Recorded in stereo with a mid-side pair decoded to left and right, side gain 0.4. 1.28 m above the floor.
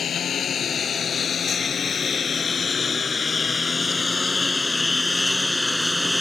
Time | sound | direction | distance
0.0 | a lawn mower | 60° left | ?